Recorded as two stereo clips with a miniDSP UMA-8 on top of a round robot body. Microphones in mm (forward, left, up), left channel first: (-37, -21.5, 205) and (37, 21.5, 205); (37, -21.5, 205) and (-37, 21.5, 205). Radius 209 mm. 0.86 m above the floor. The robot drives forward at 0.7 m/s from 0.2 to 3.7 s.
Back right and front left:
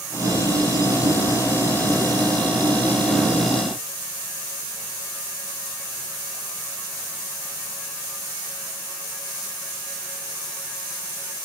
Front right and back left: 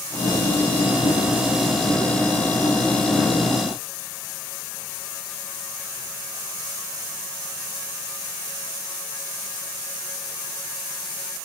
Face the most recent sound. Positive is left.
No sound to turn to.